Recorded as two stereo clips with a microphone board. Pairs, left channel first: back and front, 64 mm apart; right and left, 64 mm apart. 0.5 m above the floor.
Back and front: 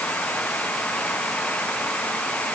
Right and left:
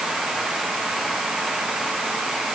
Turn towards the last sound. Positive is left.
No sound to turn to.